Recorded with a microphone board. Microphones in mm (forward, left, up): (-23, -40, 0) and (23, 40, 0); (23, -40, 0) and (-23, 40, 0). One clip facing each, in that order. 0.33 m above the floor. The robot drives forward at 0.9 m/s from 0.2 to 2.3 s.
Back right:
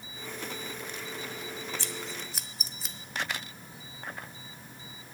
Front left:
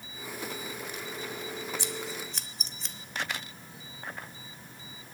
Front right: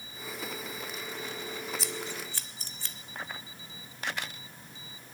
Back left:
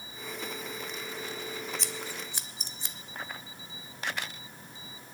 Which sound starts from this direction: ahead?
Scissors, at 1.8 s.